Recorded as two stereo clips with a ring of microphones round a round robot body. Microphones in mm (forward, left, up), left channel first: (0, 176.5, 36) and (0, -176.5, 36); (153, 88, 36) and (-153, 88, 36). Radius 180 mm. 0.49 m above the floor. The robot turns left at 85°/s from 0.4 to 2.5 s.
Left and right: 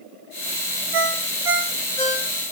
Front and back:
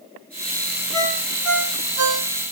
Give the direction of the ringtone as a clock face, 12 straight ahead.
3 o'clock.